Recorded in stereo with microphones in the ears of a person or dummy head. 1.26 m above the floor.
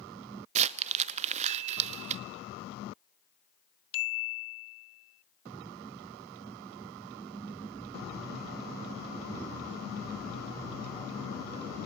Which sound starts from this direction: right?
Crumpling, at 0.6 s.